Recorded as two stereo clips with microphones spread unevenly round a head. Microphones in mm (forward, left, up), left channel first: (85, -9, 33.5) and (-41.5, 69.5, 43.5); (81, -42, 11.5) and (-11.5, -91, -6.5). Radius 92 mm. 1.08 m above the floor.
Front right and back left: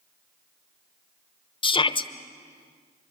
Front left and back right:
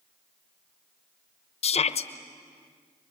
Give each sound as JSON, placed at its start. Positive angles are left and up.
{"t": 1.6, "sound": "a shout", "azimuth_deg": 15, "distance_m": 0.9}